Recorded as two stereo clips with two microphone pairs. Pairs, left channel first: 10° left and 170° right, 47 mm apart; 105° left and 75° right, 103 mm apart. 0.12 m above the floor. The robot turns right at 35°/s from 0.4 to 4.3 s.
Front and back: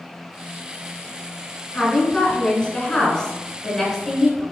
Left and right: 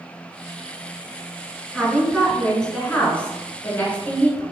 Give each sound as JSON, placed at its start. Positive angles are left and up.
{"t": 1.7, "sound": "a woman speaking", "azimuth_deg": 5, "distance_m": 1.2}